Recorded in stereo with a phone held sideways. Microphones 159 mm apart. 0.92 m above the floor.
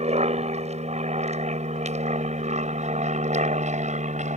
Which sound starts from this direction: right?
An aircraft, at 0.0 s.